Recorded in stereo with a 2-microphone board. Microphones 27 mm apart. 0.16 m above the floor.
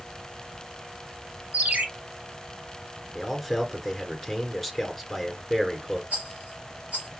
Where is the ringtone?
55° right (ahead or behind), 3 m.